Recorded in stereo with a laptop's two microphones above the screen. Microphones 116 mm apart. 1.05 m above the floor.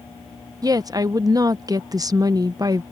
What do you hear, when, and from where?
0.6 s a woman speaking: 30° right (ahead or behind)